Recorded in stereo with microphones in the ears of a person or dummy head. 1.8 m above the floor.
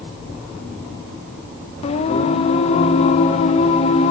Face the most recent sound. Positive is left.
turn(degrees=45)  # may be behind; listen again after turning